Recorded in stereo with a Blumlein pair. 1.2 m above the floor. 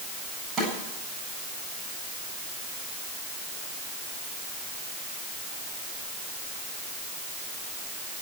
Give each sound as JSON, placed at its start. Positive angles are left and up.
{"t": 0.6, "sound": "a snare drum", "azimuth_deg": -15, "distance_m": 8.5}